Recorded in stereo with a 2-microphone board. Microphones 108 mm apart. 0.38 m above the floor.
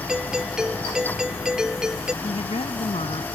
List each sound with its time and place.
0.1 s a doorbell: 5° right (ahead or behind)
2.2 s a woman speaking: 70° left (ahead or behind)